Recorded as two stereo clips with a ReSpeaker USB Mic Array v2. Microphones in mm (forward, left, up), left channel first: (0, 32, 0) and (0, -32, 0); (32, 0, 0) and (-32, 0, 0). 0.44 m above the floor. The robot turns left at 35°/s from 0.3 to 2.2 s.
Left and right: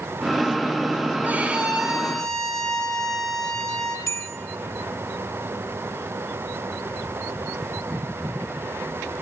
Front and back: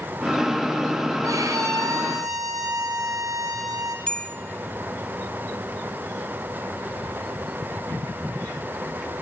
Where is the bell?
70° left, 0.6 m.